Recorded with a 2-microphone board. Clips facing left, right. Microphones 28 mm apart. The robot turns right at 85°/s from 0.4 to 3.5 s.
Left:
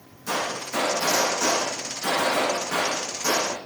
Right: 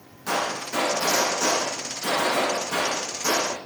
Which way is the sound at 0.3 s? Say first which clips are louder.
Right 1 dB; 90° right.